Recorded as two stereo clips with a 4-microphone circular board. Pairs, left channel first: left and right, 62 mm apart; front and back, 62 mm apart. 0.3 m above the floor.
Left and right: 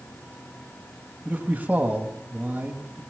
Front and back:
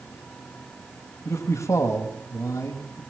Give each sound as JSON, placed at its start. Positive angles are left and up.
{"t": 1.2, "sound": "a man speaking", "azimuth_deg": -25, "distance_m": 2.0}